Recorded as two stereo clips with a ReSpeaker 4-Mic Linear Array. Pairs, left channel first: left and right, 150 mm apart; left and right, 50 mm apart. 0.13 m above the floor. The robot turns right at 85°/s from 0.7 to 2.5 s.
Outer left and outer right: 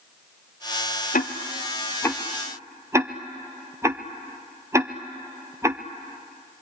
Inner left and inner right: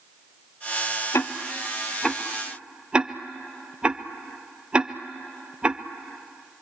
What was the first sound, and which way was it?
Ticking, 70° left (ahead or behind).